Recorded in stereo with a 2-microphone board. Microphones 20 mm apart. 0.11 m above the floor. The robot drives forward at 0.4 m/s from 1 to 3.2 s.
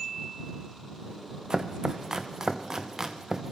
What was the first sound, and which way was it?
Chopping, 35° right (ahead or behind).